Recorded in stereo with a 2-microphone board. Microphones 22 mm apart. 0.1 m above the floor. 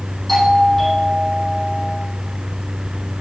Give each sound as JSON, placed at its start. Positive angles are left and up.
{"t": 0.3, "sound": "a doorbell", "side_deg": 10, "distance_m": 5.5}